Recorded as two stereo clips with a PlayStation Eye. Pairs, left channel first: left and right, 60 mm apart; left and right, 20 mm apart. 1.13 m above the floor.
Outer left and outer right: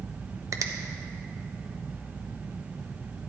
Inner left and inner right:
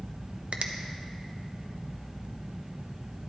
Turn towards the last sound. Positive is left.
turn(degrees=-65)  # may be behind; listen again after turning